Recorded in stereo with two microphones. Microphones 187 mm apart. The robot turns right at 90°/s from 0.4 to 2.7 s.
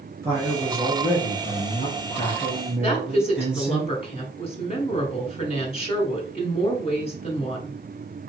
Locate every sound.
0.2 s a man speaking: 20° right, 2 m; by 3.8 s 175° right, 2 m
2.8 s a woman speaking: 35° left (ahead or behind), 1.7 m